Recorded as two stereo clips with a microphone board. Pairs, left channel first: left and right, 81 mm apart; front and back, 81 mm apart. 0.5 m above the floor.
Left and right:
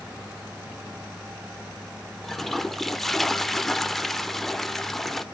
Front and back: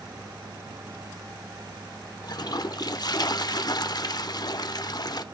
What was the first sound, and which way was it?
A toilet flushing, 5° left.